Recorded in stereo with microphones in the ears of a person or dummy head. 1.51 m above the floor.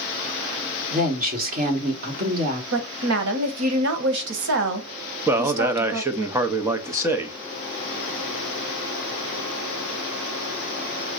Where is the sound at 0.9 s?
50° right (ahead or behind), 1.5 m.